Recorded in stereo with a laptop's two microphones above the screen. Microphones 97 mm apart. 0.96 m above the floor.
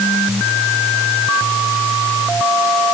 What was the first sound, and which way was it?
Only background noise.